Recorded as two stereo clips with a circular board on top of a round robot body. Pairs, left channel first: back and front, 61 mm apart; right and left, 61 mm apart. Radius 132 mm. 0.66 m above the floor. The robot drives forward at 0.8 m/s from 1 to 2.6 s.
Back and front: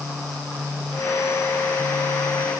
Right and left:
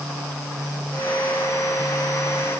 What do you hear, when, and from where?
Only background noise.